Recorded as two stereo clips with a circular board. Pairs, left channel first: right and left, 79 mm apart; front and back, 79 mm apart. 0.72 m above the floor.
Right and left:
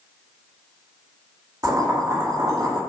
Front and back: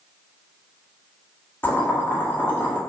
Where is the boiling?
60° left, 2 m.